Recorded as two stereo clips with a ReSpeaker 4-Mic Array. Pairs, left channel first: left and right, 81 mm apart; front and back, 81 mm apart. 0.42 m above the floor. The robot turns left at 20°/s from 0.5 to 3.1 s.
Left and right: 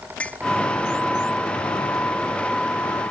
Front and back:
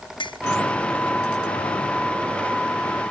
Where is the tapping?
15° left.